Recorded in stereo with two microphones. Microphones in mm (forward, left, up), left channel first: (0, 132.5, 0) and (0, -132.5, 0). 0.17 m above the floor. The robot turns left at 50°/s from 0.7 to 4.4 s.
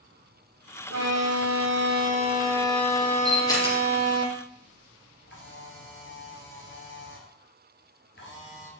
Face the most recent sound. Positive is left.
turn(degrees=45)  # may be behind; listen again after turning